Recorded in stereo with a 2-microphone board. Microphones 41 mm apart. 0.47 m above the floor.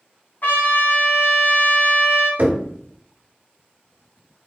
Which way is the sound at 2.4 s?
50° right (ahead or behind).